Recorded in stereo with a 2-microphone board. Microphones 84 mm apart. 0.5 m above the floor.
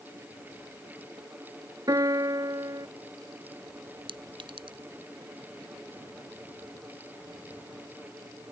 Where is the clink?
80° right.